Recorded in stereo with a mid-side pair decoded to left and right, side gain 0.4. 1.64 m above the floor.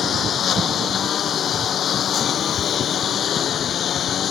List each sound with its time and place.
0.0 s a lawn mower: 60° left